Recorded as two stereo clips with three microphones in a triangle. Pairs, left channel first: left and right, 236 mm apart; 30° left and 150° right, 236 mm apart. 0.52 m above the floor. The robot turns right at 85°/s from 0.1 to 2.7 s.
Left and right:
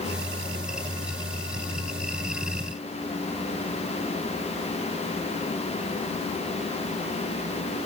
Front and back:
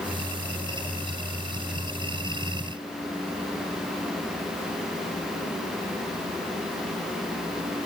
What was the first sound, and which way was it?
Only background noise.